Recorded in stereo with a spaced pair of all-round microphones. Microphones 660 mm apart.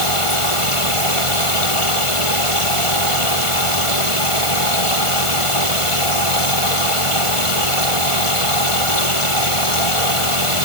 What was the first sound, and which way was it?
A machine running, 50° left (ahead or behind).